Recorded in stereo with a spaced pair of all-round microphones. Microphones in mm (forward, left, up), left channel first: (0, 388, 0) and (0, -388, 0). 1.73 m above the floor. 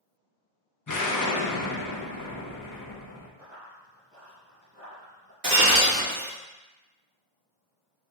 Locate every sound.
0.9 s an explosion: 25° left (ahead or behind), 0.5 m
3.4 s running footsteps: 20° left (ahead or behind), 2.0 m; by 5.3 s 15° right (ahead or behind), 1.8 m
5.4 s breaking glass: 45° right (ahead or behind), 1.9 m